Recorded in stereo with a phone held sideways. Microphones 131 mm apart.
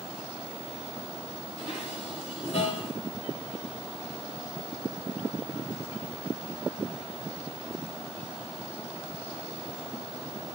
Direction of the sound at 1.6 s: 50° left (ahead or behind).